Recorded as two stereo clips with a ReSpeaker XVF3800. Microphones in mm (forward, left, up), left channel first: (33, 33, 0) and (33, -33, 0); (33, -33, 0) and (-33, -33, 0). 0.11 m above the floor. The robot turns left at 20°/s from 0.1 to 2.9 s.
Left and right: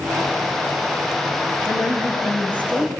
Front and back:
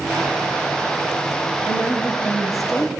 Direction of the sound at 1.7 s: 5° right.